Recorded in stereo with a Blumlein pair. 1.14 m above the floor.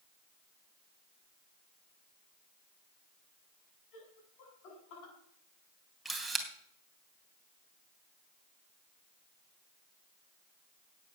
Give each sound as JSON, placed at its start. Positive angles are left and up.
{"t": 3.9, "sound": "laughter", "azimuth_deg": 40, "distance_m": 8.0}
{"t": 6.0, "sound": "a camera shutter", "azimuth_deg": -5, "distance_m": 3.0}